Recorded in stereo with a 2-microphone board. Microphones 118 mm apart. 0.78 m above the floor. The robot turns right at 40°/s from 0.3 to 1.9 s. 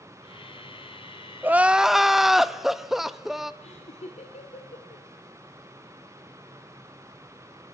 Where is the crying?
15° right (ahead or behind), 0.6 m; by 3.5 s 5° right (ahead or behind), 0.6 m.